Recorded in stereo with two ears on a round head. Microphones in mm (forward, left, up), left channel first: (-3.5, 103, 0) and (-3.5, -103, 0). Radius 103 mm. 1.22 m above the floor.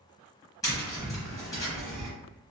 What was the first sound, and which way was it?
Tapping, 15° left (ahead or behind).